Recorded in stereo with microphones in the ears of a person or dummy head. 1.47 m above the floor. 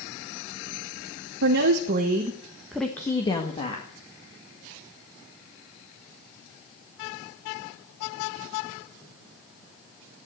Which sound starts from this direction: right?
A woman speaking, at 1.4 s.